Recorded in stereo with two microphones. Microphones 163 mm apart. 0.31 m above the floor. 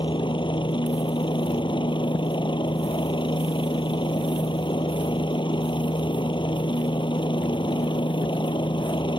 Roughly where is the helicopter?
Left.